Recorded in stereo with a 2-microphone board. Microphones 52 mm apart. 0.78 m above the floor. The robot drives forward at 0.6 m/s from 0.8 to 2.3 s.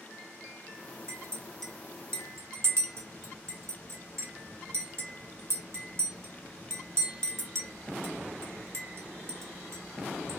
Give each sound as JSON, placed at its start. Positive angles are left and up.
{"t": 1.1, "sound": "a clink", "side_deg": -75, "distance_m": 1.2}